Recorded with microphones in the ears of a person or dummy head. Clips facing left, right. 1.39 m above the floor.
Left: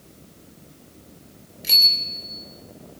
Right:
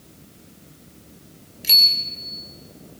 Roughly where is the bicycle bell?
Centre.